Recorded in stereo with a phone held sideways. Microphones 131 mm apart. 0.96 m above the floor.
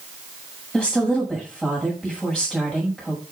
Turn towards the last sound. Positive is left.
turn(degrees=-5)  # may be behind; listen again after turning